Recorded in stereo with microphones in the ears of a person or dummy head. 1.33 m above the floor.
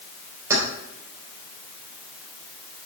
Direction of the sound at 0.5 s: 15° right (ahead or behind).